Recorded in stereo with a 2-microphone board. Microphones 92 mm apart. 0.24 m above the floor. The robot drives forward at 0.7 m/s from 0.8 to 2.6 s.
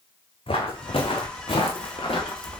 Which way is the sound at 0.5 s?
75° left (ahead or behind).